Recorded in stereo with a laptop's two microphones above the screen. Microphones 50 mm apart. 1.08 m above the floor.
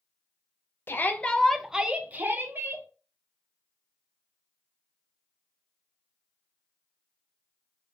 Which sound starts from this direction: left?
A shout, at 0.9 s.